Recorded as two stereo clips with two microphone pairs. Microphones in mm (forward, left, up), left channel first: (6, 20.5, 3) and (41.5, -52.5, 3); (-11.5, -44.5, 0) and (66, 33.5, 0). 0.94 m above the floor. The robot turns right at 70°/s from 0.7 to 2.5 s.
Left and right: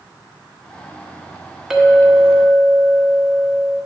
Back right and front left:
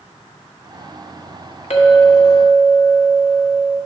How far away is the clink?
About 1.1 m.